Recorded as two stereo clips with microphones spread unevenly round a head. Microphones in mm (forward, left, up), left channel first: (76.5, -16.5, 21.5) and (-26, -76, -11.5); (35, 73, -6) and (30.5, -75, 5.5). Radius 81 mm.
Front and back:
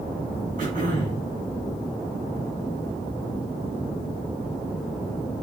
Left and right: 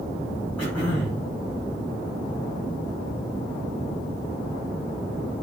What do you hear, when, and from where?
0.6 s throat clearing: 170° left, 5.5 m